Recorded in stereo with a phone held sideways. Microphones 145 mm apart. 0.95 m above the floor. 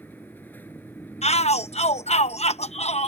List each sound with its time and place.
0.0 s a fan: 15° left (ahead or behind)
1.2 s a shout: 50° left (ahead or behind)